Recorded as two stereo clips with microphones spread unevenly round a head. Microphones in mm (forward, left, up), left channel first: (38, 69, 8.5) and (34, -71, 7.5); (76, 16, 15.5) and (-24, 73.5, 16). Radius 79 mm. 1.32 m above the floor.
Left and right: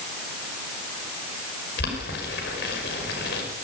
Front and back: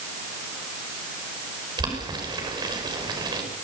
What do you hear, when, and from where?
1.8 s boiling: 100° left, 5.5 m